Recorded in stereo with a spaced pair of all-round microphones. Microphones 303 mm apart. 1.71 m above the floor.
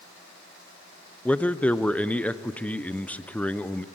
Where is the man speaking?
5° left (ahead or behind), 0.6 m.